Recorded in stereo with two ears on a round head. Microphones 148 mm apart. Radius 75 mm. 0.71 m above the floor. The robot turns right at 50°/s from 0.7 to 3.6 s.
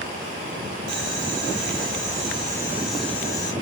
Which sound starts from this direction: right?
Boiling, at 0.9 s.